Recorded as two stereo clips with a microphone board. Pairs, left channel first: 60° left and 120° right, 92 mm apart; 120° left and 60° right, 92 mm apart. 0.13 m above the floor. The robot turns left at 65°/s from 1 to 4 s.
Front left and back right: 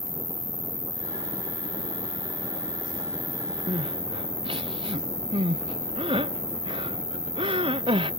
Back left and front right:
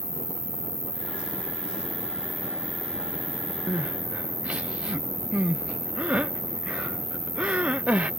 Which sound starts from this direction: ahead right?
An insect, at 0.0 s.